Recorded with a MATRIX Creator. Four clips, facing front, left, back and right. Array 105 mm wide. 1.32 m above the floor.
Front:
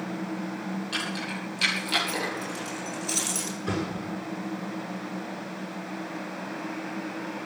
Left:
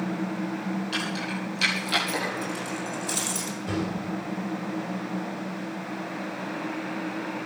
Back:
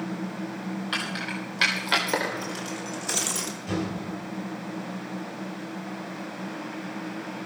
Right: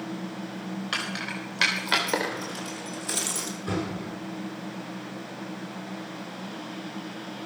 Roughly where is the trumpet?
I don't hear a trumpet.